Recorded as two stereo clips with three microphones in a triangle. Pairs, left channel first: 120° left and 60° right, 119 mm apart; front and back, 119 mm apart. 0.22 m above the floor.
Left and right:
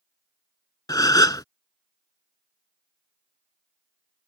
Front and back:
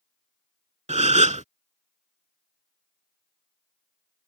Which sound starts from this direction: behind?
A gasp, at 0.9 s.